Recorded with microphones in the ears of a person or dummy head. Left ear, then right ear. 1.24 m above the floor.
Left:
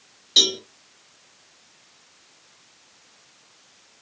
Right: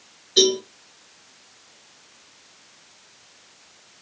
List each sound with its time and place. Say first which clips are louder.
0.4 s a cowbell: even; 35° left (ahead or behind), 1.3 m